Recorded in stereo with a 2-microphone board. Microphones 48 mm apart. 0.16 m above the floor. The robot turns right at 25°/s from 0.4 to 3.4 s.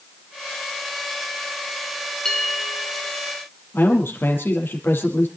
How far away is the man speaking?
About 4.5 m.